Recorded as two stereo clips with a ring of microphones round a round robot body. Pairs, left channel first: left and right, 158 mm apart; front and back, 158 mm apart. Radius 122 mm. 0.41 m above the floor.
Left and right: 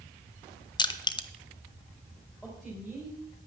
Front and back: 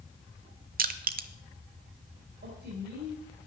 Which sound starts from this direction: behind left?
Crushing, at 0.8 s.